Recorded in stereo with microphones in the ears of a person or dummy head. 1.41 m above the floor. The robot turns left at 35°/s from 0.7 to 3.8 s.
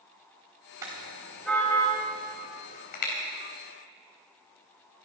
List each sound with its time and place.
0.8 s a car horn: 20° right (ahead or behind), 3.5 m; by 3.1 s 55° left (ahead or behind), 3.5 m